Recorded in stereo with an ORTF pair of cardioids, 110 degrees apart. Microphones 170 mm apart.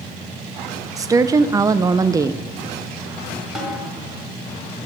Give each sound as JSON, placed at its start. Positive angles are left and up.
{"t": 1.0, "sound": "a woman speaking", "azimuth_deg": -20, "distance_m": 0.5}
{"t": 3.5, "sound": "a snare drum", "azimuth_deg": 0, "distance_m": 5.0}